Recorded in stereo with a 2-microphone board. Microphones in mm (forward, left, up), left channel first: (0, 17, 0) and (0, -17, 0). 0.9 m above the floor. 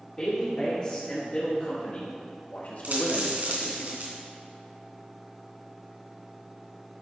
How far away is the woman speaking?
About 2.5 m.